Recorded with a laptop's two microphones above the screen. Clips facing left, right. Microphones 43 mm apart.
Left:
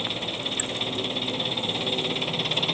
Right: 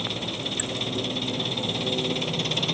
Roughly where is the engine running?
Centre.